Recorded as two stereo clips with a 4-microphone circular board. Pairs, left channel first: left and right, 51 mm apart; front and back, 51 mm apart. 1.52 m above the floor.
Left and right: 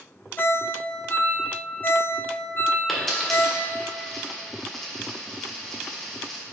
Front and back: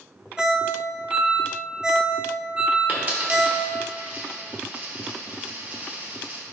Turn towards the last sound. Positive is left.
turn(degrees=170)